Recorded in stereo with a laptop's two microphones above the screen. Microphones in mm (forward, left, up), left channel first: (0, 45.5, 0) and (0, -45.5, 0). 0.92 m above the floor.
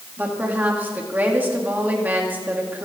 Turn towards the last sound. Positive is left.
turn(degrees=-20)  # may be behind; listen again after turning